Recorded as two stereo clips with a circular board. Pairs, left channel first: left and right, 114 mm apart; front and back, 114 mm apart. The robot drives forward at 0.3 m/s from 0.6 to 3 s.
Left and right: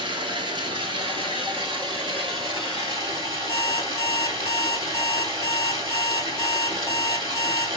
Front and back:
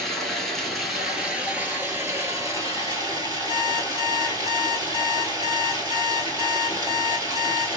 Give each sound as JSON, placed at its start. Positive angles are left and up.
{"t": 0.0, "sound": "running water", "azimuth_deg": -85, "distance_m": 1.0}
{"t": 3.5, "sound": "an alarm clock", "azimuth_deg": 145, "distance_m": 1.0}